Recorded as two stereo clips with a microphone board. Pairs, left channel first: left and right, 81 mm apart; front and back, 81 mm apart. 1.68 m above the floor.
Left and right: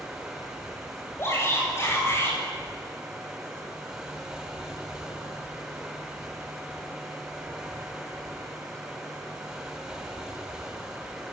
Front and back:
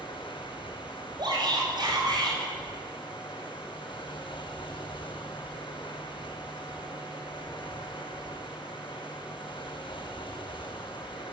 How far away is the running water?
About 7 m.